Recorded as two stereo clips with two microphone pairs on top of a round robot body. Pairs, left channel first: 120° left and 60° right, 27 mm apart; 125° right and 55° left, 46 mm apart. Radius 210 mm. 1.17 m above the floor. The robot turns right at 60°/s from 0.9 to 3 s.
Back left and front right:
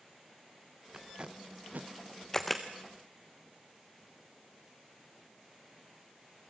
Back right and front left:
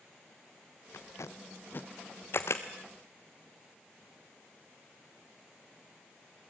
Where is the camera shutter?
165° right, 0.5 m; by 2.6 s 145° right, 0.5 m.